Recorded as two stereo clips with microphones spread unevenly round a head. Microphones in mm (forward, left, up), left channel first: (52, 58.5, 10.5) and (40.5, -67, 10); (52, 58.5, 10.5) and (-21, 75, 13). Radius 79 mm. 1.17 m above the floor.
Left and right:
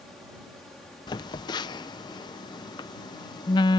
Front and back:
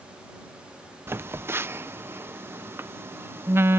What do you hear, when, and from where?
1.1 s a phone buzzing: 125° left